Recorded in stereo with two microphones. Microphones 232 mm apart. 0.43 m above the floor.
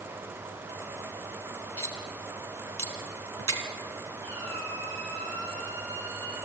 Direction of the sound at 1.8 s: 75° right (ahead or behind).